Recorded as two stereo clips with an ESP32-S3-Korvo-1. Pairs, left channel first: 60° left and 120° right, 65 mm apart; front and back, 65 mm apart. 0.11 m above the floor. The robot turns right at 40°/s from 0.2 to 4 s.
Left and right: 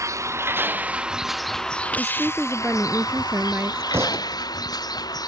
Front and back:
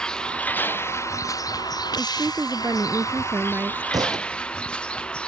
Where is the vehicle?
80° right; by 5.3 s 75° left.